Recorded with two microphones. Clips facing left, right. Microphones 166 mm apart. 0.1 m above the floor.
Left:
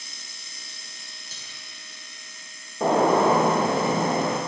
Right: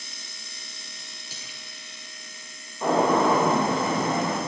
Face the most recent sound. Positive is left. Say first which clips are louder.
# left 2 dB
turn(degrees=70)  # may be behind; listen again after turning